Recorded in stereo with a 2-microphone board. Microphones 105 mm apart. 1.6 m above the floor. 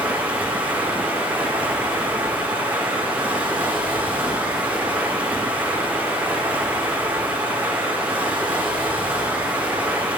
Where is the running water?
15° right (ahead or behind), 0.9 m.